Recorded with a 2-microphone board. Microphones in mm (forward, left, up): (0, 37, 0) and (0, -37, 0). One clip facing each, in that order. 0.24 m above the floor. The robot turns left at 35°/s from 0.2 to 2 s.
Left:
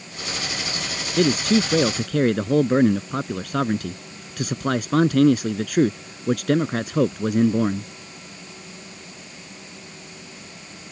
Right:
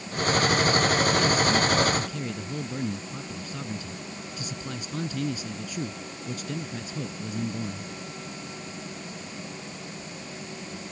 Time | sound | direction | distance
1.2 | a man speaking | 60° left (ahead or behind) | ?